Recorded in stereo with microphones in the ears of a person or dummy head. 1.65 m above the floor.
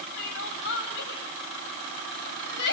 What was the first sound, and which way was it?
Crying, 70° left (ahead or behind).